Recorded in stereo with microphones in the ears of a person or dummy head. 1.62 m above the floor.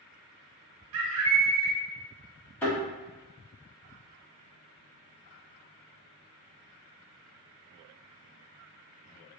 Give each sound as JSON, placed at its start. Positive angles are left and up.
{"t": 0.9, "sound": "a bird", "side_deg": -75, "distance_m": 0.7}
{"t": 2.6, "sound": "a thud", "side_deg": 10, "distance_m": 1.2}